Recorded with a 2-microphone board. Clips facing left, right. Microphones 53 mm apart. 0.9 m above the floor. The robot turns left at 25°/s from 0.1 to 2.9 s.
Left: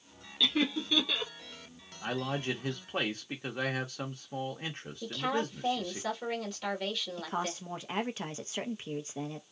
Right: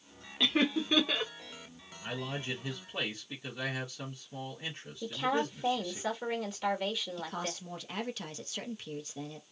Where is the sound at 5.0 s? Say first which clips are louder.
Right 1 dB; 15° right (ahead or behind), 1.5 m.